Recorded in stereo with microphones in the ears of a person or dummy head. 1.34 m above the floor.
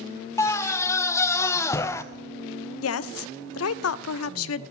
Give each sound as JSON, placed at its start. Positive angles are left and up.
{"t": 0.4, "sound": "a scream", "side_deg": 15, "distance_m": 0.6}
{"t": 2.8, "sound": "a woman speaking", "side_deg": 75, "distance_m": 0.5}